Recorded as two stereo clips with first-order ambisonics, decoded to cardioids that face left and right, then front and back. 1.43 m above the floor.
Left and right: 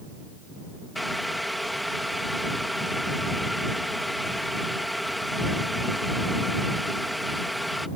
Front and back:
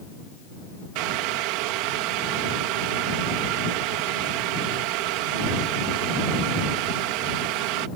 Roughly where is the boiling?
Behind.